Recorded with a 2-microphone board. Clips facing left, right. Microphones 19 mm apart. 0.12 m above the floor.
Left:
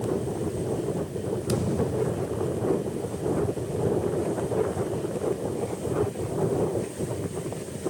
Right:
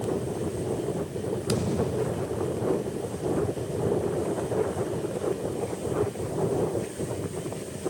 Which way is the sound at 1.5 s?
15° right (ahead or behind).